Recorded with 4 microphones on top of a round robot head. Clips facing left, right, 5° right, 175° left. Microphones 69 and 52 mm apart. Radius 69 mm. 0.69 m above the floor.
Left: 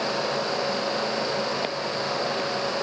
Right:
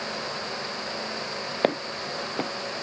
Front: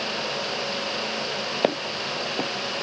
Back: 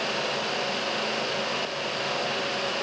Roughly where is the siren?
I don't hear a siren.